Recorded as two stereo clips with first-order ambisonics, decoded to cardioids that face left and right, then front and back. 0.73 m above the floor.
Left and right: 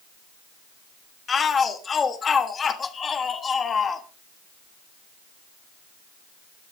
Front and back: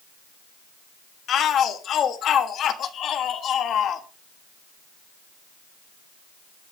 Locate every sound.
1.3 s a shout: 30° left, 1.3 m